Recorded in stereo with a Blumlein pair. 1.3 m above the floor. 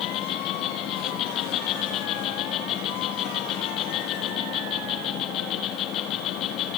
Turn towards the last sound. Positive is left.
turn(degrees=35)